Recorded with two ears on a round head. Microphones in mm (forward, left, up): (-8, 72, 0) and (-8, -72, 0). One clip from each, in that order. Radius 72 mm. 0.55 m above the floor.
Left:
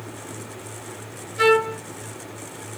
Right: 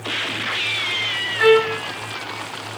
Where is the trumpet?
35° left (ahead or behind), 5 m.